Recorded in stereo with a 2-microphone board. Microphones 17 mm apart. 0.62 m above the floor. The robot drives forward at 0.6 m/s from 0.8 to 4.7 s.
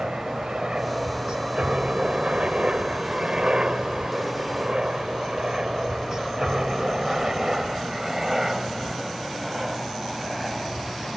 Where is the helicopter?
65° right (ahead or behind); by 11.2 s 5° right (ahead or behind).